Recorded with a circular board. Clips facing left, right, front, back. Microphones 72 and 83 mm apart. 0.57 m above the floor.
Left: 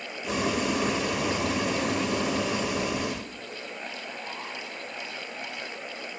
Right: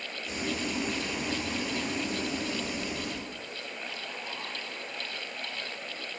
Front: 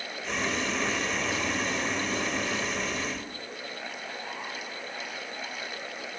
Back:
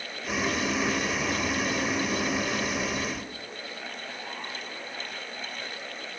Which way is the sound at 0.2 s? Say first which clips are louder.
Left 7 dB, back 2 dB; 95° left.